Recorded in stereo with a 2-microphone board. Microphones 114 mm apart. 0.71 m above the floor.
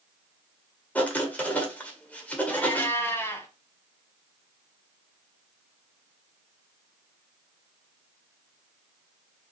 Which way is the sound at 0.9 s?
15° left (ahead or behind).